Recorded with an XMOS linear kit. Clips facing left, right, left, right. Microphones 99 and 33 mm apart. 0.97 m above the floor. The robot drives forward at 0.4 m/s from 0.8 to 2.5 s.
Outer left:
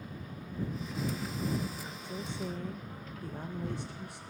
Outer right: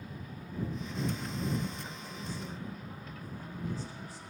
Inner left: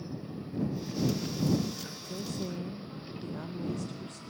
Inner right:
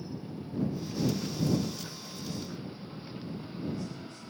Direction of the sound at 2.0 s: 60° left (ahead or behind).